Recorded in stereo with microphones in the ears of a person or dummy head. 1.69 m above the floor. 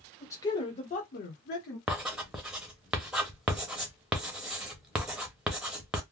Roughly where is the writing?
Centre.